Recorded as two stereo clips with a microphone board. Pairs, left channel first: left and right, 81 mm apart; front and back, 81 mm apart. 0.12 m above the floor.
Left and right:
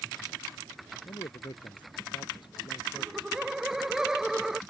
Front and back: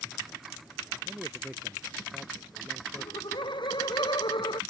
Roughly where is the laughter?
Ahead.